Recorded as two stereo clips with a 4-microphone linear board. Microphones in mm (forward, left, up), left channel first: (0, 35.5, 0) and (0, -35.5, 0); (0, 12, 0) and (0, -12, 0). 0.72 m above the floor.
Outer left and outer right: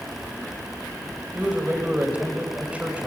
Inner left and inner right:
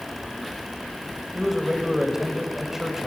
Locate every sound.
1.4 s a man speaking: 20° right (ahead or behind), 4 m